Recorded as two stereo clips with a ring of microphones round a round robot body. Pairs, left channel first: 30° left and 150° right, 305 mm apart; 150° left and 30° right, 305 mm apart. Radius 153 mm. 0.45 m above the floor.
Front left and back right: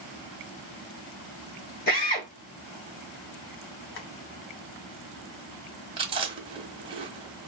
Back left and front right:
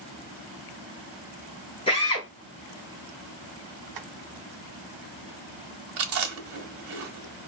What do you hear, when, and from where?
1.9 s a drill: 80° left, 1.9 m
4.0 s tapping: 20° right, 0.9 m
6.0 s chewing: 75° right, 1.1 m